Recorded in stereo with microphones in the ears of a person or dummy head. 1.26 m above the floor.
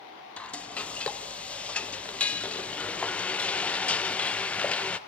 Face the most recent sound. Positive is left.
turn(degrees=5)  # may be behind; listen again after turning